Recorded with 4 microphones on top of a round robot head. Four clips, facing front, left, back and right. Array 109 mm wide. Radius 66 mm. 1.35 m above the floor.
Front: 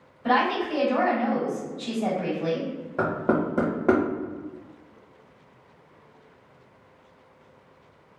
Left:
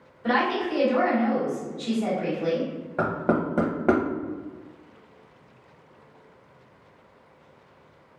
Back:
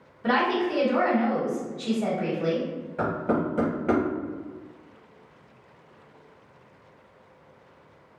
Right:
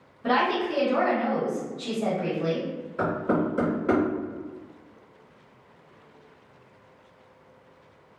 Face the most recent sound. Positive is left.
turn(degrees=55)